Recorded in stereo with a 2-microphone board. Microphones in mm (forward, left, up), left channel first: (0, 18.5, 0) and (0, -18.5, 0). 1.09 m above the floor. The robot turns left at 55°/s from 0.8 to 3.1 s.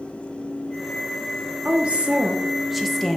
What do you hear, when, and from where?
1.6 s a woman speaking: 110° right, 1.0 m; by 3.2 s 170° left, 1.0 m